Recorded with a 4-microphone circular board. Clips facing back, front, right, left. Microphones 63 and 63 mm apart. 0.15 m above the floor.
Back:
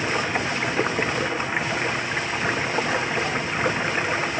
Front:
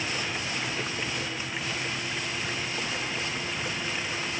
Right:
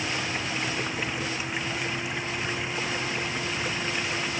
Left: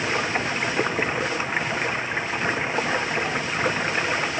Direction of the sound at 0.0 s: 140° left.